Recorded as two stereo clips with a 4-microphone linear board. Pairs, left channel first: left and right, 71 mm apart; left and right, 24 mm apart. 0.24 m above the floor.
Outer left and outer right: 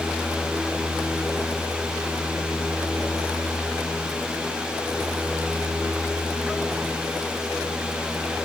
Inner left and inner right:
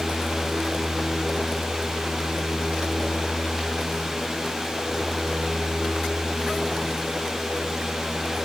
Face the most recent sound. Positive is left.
No sound to turn to.